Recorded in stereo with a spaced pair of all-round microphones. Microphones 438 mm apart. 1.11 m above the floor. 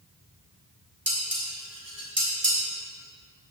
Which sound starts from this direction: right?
Dishes clattering, at 1.1 s.